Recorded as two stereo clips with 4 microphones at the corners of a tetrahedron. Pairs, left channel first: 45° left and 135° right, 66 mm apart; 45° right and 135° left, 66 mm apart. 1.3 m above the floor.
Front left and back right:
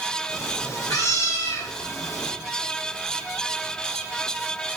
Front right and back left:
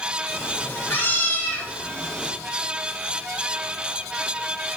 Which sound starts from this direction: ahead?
A cat meowing, at 0.3 s.